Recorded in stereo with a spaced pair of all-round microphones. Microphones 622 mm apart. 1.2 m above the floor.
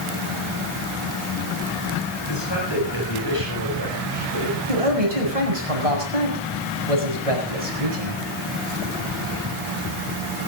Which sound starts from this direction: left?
A man speaking, at 2.3 s.